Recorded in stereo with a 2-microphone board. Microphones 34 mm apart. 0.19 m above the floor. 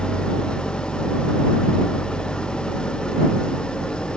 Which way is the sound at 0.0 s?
30° left (ahead or behind).